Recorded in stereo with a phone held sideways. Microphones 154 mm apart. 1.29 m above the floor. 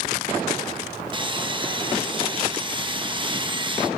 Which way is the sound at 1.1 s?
30° right (ahead or behind).